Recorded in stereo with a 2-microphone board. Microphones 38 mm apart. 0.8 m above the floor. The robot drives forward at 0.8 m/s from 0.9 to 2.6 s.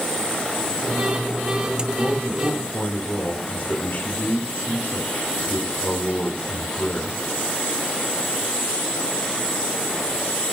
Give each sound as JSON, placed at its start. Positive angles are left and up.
{"t": 1.9, "sound": "a man speaking", "side_deg": 50, "distance_m": 3.5}